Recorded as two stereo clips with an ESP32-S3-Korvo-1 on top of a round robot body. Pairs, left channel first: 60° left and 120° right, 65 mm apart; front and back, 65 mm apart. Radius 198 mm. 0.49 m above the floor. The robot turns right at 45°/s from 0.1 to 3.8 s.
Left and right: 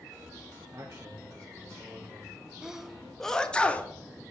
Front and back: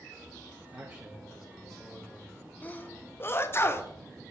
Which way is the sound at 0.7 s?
140° right.